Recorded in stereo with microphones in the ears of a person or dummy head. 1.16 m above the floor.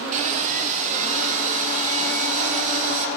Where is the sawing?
40° right (ahead or behind), 1.5 m.